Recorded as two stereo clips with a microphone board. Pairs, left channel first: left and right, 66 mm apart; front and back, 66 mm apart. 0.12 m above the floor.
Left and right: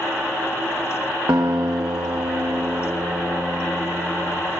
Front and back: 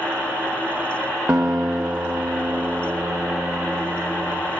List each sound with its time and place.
1.3 s a guitar: 110° right, 2.5 m